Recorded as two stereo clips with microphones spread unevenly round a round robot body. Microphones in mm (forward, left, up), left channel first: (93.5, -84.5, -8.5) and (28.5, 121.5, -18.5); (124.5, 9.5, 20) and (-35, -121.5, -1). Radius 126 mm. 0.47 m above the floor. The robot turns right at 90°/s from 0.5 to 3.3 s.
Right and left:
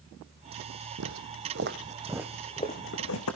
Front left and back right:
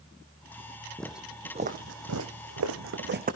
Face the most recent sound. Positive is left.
turn(degrees=-90)